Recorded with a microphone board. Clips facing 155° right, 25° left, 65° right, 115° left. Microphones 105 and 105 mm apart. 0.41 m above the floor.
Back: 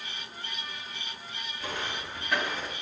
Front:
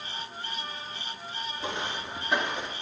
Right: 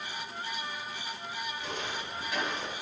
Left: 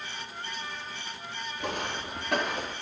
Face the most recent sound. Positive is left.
turn(degrees=90)